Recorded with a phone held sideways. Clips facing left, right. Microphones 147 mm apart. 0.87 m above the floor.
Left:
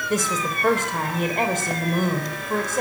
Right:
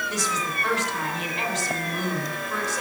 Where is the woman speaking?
50° left (ahead or behind), 4 m.